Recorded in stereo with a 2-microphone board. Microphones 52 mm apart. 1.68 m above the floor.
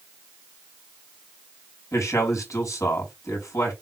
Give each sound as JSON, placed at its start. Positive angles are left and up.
{"t": 1.9, "sound": "a man speaking", "side_deg": 80, "distance_m": 5.0}